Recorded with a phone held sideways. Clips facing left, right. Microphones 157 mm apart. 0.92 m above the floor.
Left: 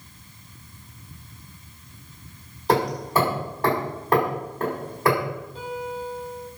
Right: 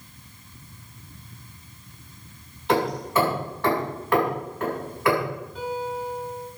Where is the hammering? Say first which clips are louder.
Left 1 dB; 40° left (ahead or behind), 6 m.